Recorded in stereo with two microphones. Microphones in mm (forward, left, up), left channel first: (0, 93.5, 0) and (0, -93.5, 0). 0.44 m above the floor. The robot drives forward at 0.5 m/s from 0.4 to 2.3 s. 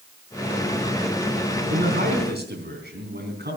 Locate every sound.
1.7 s a man speaking: 55° right (ahead or behind), 3.5 m; by 3.6 s 60° right (ahead or behind), 3.5 m